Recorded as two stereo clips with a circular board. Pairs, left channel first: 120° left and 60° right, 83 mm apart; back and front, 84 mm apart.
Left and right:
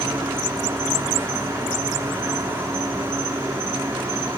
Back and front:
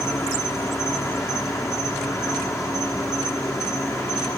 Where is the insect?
120° right, 2.5 m.